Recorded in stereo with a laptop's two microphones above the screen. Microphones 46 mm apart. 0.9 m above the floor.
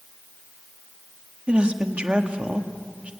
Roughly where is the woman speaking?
Right.